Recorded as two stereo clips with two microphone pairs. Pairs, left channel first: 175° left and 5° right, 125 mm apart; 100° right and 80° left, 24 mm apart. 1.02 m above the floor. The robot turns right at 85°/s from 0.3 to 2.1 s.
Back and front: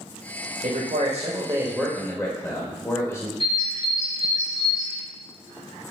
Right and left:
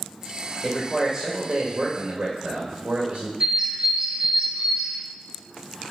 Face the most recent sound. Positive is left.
turn(degrees=45)